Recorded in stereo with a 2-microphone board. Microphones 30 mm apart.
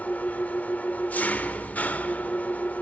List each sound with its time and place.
0.0 s an engine running: 60° left (ahead or behind), 0.8 m